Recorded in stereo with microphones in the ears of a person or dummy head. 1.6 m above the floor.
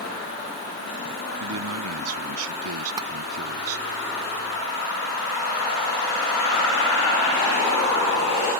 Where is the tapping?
15° right (ahead or behind).